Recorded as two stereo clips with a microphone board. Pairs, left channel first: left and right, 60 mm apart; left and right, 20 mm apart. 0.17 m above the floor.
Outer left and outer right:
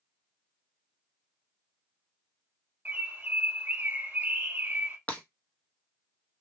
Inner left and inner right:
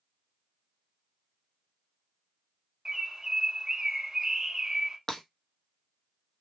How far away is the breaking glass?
About 0.9 m.